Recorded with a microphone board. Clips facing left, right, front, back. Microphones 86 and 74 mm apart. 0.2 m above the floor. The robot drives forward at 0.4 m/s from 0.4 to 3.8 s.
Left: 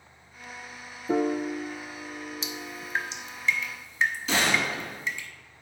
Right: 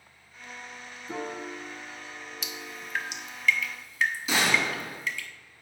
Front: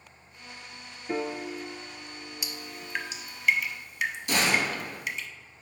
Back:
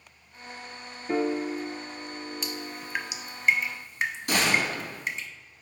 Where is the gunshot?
170° right, 2.5 m.